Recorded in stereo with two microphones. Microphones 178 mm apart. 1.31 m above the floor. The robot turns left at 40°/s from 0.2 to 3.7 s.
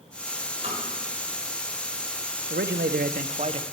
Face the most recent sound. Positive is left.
turn(degrees=-150)